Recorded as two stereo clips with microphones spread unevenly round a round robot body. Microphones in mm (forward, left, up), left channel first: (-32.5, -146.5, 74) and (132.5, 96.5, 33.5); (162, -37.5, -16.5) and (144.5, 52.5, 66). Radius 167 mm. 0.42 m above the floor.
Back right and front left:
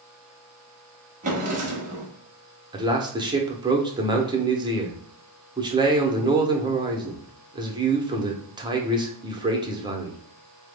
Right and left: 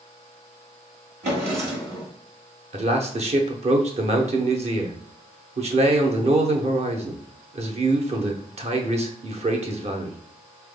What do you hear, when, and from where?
1.2 s a drawer: 120° left, 1.1 m
2.7 s a man speaking: 60° left, 0.8 m